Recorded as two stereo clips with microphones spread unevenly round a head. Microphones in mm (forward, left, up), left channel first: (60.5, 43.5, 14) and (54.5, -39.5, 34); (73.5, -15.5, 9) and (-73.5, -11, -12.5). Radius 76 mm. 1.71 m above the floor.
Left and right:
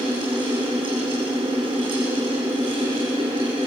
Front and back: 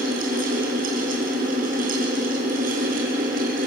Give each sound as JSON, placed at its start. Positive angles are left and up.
{"t": 0.0, "sound": "a fan", "azimuth_deg": -150, "distance_m": 7.0}